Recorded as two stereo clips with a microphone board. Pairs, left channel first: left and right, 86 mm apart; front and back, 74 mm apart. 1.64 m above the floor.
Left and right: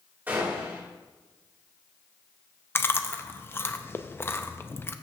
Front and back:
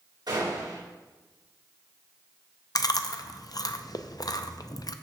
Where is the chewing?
25° left, 0.5 m.